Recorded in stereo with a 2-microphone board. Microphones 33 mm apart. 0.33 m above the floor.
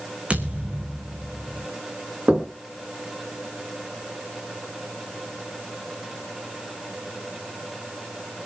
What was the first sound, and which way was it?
A thud, 40° right (ahead or behind).